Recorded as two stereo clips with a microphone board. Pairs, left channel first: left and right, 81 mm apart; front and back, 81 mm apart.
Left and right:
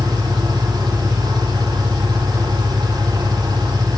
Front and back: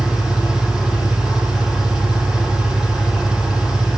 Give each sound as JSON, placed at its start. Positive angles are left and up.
{"t": 0.0, "sound": "an engine running", "azimuth_deg": -95, "distance_m": 8.0}